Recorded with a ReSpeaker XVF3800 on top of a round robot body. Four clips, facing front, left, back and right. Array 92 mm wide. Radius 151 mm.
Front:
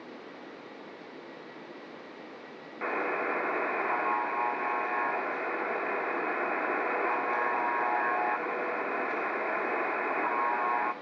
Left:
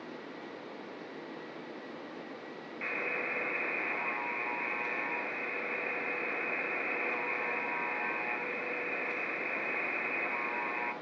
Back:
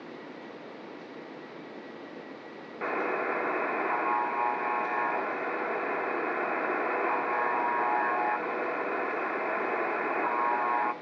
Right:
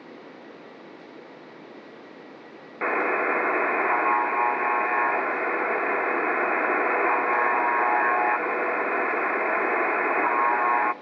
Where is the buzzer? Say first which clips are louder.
Right 13 dB, back 1 dB; 95° right, 0.5 m.